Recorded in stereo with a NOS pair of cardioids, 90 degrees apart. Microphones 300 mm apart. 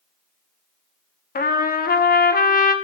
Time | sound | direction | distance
1.4 | a trumpet | 30° left | 0.9 m